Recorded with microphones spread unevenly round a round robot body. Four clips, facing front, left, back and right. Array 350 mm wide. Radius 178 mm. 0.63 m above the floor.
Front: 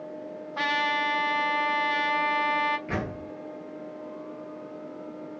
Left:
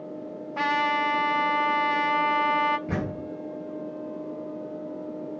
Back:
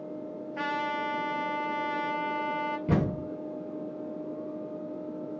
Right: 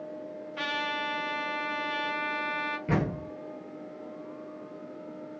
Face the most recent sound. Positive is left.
turn(degrees=-175)